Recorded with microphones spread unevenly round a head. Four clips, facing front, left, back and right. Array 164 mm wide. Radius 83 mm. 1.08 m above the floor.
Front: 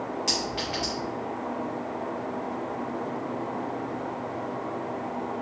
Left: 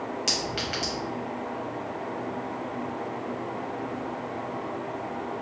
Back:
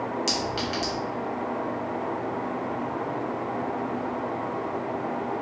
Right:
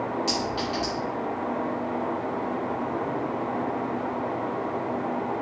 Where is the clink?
85° left, 0.9 m.